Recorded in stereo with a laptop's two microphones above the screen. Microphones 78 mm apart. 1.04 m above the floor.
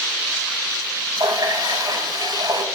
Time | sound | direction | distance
1.2 | a running tap | 55° right (ahead or behind) | 3.5 m